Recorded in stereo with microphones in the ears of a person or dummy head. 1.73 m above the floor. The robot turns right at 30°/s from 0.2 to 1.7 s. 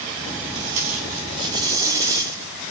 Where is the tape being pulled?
50° right (ahead or behind), 4.5 m; by 2.7 s 20° right (ahead or behind), 4.5 m.